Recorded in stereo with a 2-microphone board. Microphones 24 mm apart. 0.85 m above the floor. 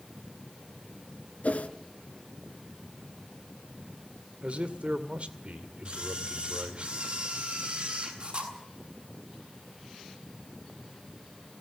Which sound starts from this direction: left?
A whoosh, at 1.4 s.